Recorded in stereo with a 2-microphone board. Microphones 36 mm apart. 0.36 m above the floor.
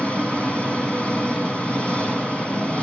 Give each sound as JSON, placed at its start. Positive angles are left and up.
{"t": 0.0, "sound": "an engine running", "side_deg": 35, "distance_m": 3.5}